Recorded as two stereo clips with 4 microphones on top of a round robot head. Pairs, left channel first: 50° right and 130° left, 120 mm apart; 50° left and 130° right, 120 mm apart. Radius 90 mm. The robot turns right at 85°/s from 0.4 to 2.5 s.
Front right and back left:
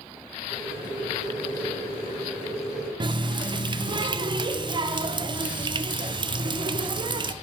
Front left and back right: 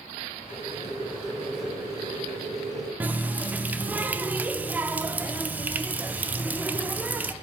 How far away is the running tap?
About 0.5 m.